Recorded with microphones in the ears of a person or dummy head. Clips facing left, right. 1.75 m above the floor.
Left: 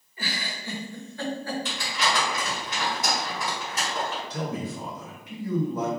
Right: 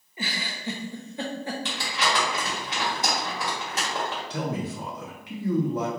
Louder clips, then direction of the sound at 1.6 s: Even; 60° right (ahead or behind).